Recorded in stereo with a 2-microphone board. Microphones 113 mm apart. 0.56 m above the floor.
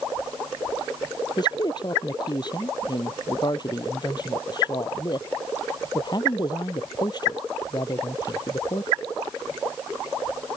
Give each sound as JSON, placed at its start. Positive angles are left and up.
{"t": 1.4, "sound": "a man speaking", "side_deg": 40}